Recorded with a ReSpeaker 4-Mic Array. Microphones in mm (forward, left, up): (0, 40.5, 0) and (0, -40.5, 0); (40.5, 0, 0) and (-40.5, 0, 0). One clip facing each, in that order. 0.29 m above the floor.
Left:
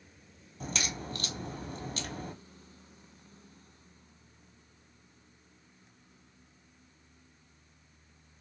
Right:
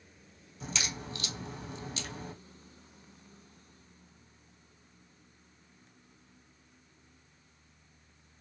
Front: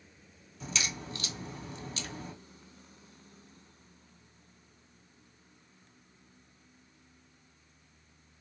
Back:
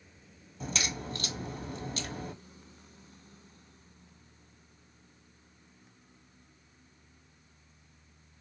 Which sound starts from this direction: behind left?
A crack, at 0.6 s.